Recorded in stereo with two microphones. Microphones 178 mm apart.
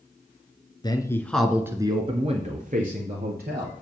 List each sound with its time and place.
0.8 s a man speaking: 25° left (ahead or behind), 1.4 m; by 3.7 s 60° right (ahead or behind), 2.5 m